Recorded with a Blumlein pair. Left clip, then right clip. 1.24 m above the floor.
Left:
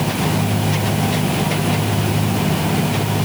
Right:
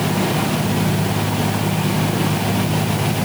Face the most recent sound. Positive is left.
No sound to turn to.